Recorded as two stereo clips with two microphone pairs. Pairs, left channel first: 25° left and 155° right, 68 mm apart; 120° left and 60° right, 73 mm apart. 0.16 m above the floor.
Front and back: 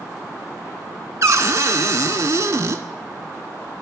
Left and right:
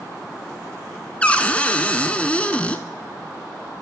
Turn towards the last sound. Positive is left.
turn(degrees=-175)